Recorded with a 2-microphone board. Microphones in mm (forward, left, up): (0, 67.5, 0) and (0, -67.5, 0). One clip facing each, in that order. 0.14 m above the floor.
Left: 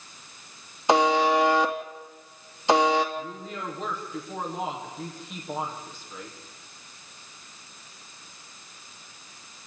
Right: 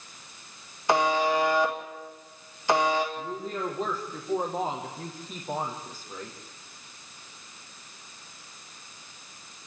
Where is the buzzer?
20° left (ahead or behind), 2.5 m.